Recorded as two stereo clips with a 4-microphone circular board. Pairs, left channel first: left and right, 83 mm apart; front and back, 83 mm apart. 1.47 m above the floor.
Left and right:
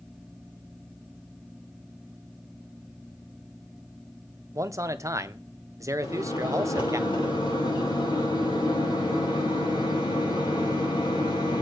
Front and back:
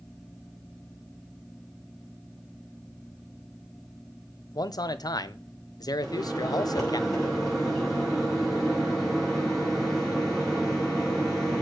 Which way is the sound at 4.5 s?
40° right.